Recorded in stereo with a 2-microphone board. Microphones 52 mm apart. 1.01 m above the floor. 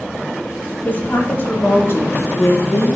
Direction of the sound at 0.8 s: 40° left (ahead or behind).